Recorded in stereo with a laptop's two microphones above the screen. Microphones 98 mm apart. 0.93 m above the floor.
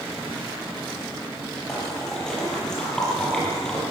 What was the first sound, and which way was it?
A splash, 5° left (ahead or behind).